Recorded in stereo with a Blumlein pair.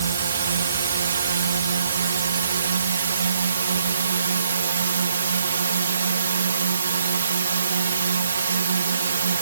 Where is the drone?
70° right.